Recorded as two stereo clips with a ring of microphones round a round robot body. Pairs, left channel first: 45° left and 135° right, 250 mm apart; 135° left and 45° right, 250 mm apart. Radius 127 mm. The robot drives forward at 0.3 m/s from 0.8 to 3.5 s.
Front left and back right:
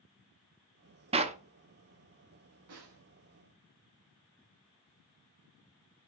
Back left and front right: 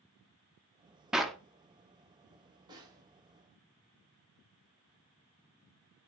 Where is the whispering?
I don't hear whispering.